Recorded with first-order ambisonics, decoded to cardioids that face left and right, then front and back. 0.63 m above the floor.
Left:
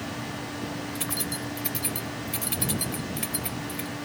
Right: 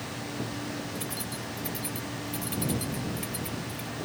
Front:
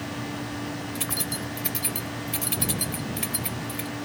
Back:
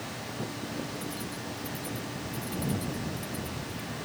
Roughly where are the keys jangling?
Ahead left.